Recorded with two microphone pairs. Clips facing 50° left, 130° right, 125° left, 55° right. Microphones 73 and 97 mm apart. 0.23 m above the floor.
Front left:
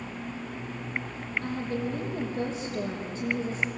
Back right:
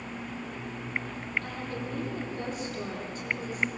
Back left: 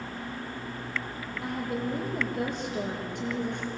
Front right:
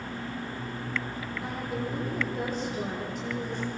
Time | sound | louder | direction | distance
1.4 | a woman speaking | front left 5 dB, back left 3 dB | 110° left | 7 m